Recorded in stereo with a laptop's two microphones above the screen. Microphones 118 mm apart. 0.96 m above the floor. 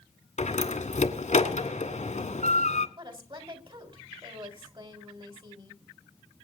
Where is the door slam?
90° left, 2.0 m.